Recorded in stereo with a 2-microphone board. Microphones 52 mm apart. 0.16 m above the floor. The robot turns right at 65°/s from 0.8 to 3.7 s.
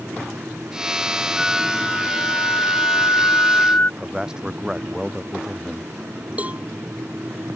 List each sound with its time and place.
1.4 s a flute: 10° right; by 3.9 s 140° left
4.0 s a man speaking: 10° right (ahead or behind)
6.4 s a cowbell: 25° right (ahead or behind)